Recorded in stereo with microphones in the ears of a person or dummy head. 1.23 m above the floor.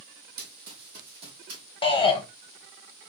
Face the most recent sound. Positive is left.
turn(degrees=25)  # may be behind; listen again after turning